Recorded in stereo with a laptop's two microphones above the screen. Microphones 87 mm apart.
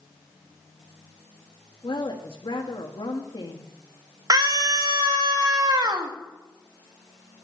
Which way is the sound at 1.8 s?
75° left (ahead or behind).